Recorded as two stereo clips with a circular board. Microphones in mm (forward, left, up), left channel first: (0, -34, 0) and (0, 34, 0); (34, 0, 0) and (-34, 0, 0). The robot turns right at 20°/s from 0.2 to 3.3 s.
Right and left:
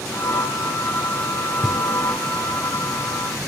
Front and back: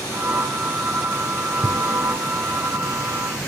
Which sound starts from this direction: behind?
Knocking, at 1.6 s.